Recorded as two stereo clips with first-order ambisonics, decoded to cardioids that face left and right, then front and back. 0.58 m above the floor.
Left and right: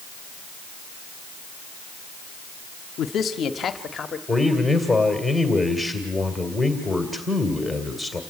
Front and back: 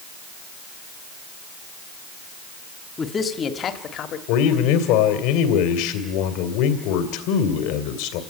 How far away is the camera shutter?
I don't hear a camera shutter.